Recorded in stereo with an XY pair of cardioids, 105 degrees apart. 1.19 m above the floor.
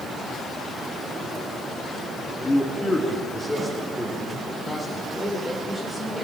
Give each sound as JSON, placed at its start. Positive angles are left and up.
{"t": 2.4, "sound": "a man speaking", "azimuth_deg": 20, "distance_m": 2.5}
{"t": 5.1, "sound": "a woman speaking", "azimuth_deg": 5, "distance_m": 4.5}